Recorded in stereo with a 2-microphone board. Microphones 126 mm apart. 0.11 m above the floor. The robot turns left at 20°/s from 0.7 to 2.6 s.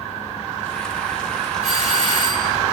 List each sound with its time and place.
1.6 s a doorbell: 55° right (ahead or behind), 4 m; by 2.6 s 40° right (ahead or behind), 4 m